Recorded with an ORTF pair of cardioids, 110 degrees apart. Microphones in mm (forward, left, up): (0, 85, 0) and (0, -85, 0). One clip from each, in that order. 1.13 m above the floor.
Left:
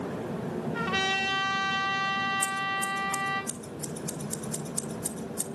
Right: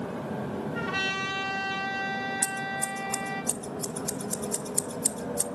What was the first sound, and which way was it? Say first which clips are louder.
A trumpet: left 2 dB; 55° left.